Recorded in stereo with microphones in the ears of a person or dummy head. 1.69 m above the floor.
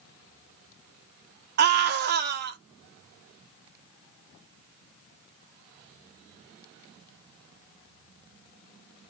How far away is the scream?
About 1.0 m.